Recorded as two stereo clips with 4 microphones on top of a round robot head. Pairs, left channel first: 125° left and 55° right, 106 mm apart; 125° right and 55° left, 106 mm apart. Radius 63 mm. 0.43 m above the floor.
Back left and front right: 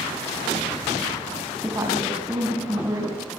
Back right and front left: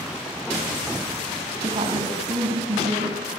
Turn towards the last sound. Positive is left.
turn(degrees=10)